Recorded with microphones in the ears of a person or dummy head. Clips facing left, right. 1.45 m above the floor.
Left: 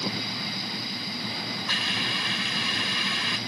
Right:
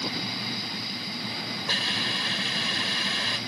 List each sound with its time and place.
1.7 s a hiss: 40° right (ahead or behind)